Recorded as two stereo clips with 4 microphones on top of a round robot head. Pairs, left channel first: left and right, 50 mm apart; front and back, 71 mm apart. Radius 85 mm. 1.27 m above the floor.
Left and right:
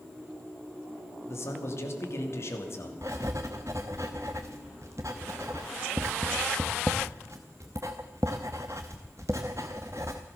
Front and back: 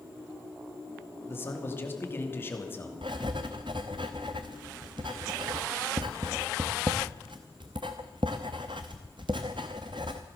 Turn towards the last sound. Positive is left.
turn(degrees=-150)